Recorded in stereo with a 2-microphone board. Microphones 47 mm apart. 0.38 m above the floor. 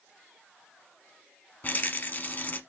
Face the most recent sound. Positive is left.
turn(degrees=45)  # may be behind; listen again after turning